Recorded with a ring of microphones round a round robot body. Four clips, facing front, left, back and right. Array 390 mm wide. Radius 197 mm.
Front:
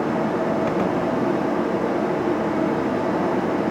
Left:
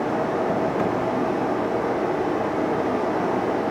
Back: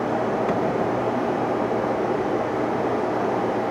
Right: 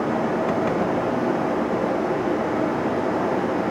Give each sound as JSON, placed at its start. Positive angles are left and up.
{"t": 0.0, "sound": "running water", "azimuth_deg": -10, "distance_m": 3.5}